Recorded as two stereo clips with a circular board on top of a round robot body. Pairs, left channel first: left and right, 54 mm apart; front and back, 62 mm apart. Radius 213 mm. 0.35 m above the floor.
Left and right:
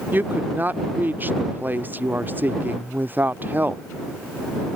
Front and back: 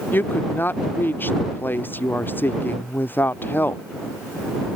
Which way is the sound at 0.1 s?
45° right.